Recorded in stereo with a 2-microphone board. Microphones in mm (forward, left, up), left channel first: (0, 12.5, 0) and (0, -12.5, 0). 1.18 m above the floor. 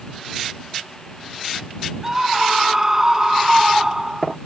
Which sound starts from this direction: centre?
A scream, at 2.0 s.